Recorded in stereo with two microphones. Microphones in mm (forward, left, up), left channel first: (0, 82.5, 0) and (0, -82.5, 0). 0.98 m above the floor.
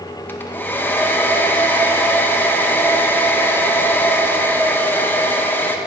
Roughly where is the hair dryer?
Centre.